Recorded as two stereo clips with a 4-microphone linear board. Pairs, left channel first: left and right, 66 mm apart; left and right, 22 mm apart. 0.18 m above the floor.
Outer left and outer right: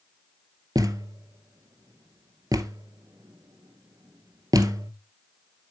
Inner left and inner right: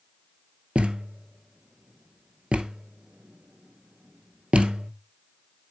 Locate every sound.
0.8 s a thud: 70° right (ahead or behind), 0.9 m